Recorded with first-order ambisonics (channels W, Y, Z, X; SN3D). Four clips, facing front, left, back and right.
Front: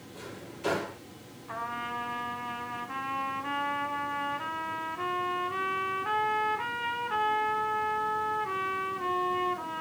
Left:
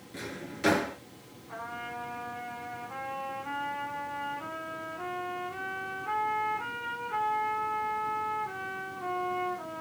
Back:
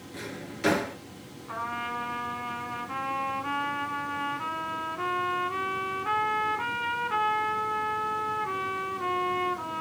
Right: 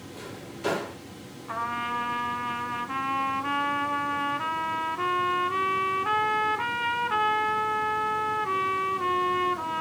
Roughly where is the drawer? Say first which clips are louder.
Left 3 dB, back 5 dB; behind left.